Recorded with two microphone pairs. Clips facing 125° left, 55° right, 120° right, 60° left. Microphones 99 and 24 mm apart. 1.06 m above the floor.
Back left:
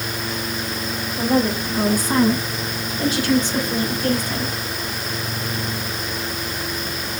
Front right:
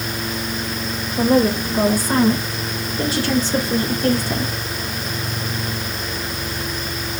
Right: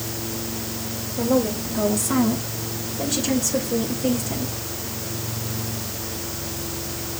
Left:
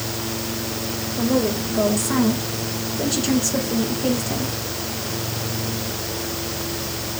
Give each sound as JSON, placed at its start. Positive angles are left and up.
{"t": 1.2, "sound": "a woman speaking", "azimuth_deg": -5, "distance_m": 6.0}